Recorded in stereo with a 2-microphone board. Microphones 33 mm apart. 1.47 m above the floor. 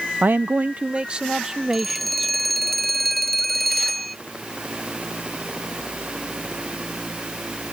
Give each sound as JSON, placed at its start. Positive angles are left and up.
{"t": 0.2, "sound": "a man speaking", "side_deg": -60}
{"t": 1.7, "sound": "a phone ringing", "side_deg": 5}